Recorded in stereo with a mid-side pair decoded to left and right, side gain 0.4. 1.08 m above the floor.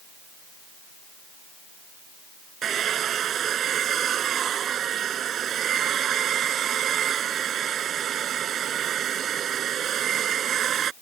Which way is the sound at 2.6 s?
65° right.